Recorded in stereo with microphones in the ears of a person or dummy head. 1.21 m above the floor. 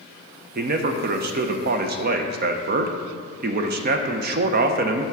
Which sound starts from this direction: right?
A man speaking, at 0.6 s.